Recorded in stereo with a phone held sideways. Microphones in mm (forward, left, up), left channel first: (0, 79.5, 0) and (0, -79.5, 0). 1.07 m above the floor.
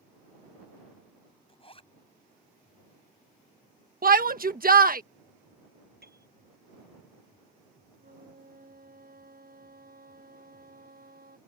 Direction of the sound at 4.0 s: 65° right (ahead or behind).